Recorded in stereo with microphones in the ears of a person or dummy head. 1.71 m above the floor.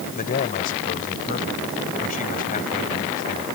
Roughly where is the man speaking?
Left.